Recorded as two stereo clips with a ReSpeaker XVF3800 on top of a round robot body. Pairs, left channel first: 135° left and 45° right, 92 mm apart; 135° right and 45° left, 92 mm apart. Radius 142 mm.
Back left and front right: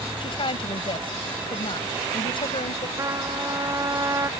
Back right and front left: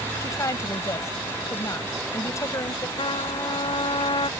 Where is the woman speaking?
165° left.